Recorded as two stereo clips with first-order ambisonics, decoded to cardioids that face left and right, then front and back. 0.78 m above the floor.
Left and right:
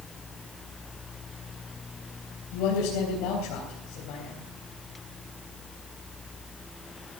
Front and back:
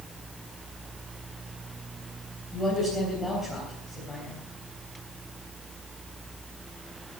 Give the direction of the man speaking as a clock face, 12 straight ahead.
9 o'clock.